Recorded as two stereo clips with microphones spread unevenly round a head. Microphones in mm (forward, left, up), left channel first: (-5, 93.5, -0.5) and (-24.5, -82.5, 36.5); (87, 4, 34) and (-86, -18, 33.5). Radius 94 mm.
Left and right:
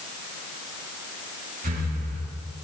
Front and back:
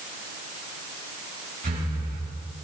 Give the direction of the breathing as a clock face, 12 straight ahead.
4 o'clock.